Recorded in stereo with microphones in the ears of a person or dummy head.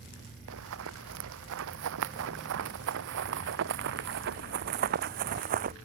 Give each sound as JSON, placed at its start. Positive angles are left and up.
{"t": 0.5, "sound": "running footsteps", "side_deg": -75}